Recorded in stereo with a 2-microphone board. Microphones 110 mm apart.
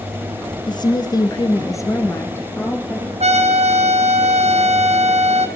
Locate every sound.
0.7 s a woman speaking: 40° left (ahead or behind), 1.4 m; by 3.1 s 15° left (ahead or behind), 2.5 m
3.2 s a trumpet: 80° right, 1.3 m